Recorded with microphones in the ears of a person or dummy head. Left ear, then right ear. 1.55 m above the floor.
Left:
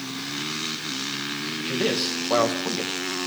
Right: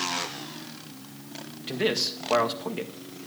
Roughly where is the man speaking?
Centre.